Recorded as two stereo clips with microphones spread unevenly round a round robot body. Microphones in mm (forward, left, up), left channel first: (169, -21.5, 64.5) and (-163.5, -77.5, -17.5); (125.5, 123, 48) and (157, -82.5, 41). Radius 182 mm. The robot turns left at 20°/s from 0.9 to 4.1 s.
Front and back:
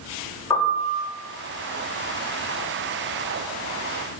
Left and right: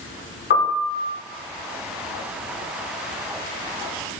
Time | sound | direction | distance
0.5 | a piano | 100° left | 1.2 m